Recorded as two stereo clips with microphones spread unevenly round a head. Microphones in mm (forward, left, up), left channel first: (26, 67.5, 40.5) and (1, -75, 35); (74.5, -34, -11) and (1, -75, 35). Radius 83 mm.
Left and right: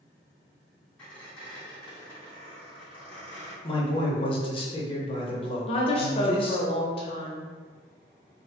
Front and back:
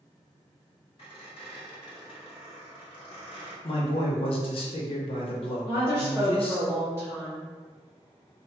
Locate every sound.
1.0 s a squeak: straight ahead, 1.8 m
3.6 s a man speaking: 25° left, 0.8 m
5.7 s a woman speaking: 135° left, 0.7 m